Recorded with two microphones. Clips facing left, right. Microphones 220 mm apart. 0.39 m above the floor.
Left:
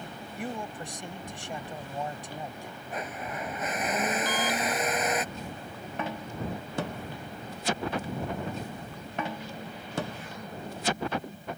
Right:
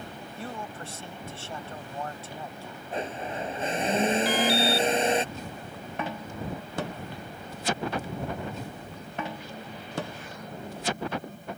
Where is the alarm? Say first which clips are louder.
Right 5 dB; 10° right (ahead or behind).